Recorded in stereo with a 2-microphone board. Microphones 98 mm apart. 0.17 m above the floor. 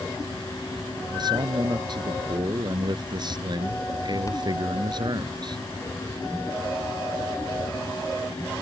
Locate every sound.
1.1 s a man speaking: 50° right (ahead or behind)